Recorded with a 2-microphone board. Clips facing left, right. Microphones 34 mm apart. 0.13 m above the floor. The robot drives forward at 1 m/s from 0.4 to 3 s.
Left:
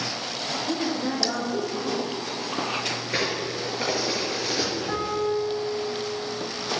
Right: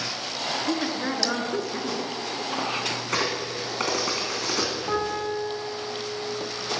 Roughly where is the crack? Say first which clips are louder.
Even; right.